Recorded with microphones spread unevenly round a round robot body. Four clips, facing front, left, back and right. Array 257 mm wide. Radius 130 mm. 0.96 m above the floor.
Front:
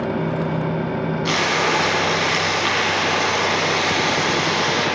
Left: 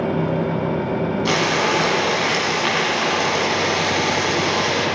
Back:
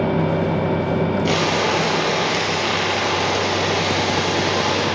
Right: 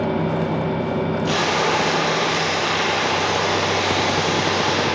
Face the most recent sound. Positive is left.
turn(degrees=100)